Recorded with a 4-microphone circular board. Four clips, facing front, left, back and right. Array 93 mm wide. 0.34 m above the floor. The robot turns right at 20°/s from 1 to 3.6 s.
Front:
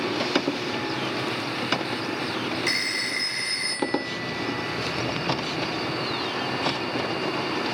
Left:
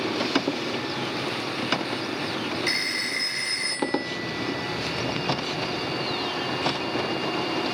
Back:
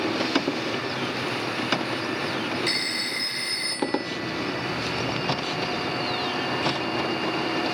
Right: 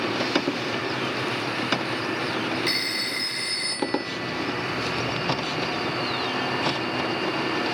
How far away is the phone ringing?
About 0.6 m.